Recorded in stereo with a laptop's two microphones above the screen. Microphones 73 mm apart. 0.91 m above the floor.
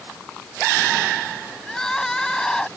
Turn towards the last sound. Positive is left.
turn(degrees=10)  # may be behind; listen again after turning